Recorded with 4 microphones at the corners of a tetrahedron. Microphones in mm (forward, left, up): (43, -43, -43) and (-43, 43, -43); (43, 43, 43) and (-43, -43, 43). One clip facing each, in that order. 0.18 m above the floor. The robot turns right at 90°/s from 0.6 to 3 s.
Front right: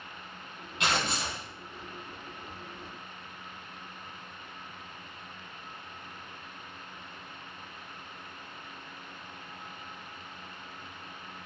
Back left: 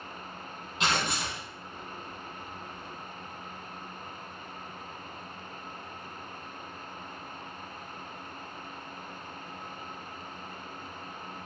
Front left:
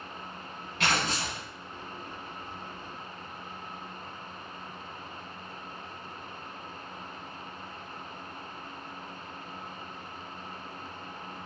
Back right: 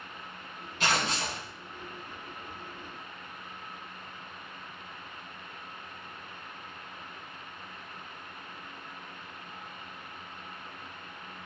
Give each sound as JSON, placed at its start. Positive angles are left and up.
{"t": 0.8, "sound": "tearing paper", "azimuth_deg": 65, "distance_m": 1.7}